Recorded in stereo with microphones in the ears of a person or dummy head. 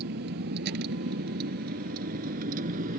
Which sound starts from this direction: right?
A vehicle, at 0.0 s.